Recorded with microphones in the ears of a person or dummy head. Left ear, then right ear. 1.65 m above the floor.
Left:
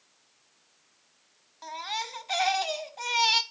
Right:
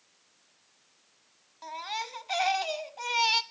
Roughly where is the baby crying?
Centre.